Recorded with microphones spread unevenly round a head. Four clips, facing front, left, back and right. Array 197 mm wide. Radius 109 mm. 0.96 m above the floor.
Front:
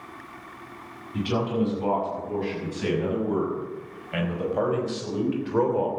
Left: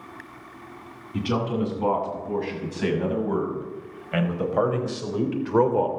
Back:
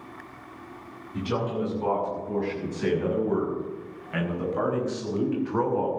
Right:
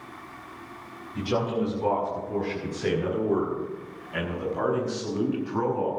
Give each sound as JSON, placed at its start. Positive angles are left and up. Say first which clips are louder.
{"t": 1.1, "sound": "a man speaking", "louder": "left 1 dB, front 3 dB", "azimuth_deg": 85, "distance_m": 8.0}